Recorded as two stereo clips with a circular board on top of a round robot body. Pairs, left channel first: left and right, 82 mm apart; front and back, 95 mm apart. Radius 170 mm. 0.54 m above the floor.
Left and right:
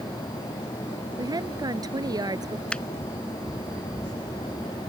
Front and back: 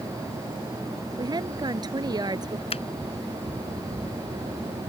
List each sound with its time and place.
1.2 s a woman speaking: 135° right
2.7 s a finger snap: 10° left